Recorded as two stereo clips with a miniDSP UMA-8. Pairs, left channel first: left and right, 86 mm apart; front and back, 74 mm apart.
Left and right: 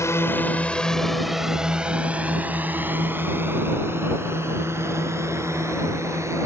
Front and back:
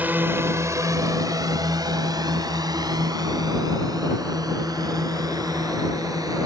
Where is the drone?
125° left; by 6.5 s 145° right.